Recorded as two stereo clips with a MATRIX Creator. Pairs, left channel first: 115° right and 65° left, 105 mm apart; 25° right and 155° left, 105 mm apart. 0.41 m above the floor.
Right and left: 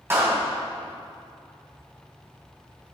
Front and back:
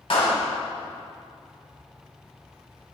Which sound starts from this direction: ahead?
A clap, at 0.1 s.